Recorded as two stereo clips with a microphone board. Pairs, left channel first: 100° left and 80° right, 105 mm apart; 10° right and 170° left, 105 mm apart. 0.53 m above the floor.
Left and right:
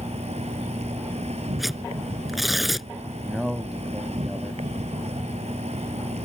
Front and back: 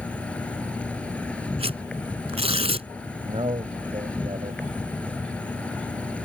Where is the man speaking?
165° right.